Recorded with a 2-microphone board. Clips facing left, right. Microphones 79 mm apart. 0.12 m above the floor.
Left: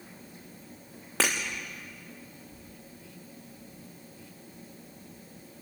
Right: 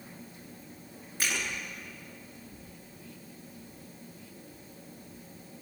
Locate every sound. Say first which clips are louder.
1.2 s breaking glass: left 5 dB; 85° left, 4.5 m